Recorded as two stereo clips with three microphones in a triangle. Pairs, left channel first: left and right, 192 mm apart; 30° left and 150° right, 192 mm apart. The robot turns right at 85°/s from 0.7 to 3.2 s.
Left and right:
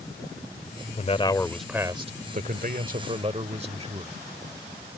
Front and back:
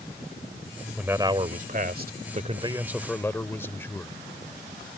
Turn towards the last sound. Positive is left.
turn(degrees=-45)